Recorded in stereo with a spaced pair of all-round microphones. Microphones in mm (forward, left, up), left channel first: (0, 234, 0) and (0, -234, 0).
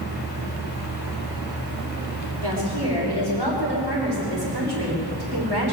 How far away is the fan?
About 6.5 m.